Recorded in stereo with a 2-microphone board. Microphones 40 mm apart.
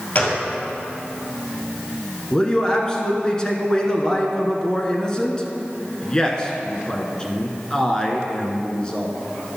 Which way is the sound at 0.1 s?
40° left (ahead or behind).